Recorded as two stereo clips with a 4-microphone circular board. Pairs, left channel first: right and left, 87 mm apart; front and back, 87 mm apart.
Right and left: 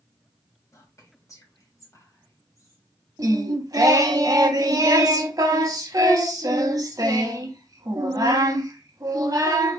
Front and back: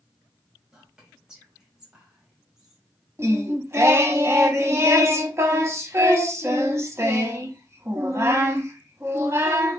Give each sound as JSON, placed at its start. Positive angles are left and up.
{"t": 0.7, "sound": "whispering", "azimuth_deg": -100, "distance_m": 1.5}
{"t": 3.2, "sound": "singing", "azimuth_deg": 130, "distance_m": 0.7}